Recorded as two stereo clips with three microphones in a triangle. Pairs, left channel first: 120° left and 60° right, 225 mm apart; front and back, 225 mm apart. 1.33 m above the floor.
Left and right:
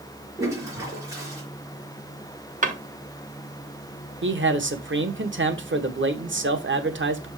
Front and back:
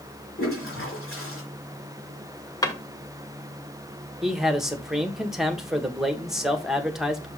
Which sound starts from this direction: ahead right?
A drawer, at 2.6 s.